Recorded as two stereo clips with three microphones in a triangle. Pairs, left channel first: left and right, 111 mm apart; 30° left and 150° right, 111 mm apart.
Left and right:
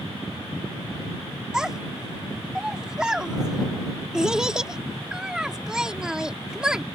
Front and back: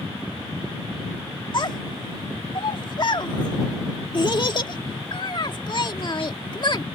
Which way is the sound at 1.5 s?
5° right.